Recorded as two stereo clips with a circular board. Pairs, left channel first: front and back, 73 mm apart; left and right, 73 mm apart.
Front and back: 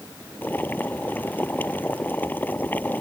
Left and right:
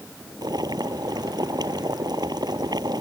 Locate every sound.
0.4 s boiling: 65° right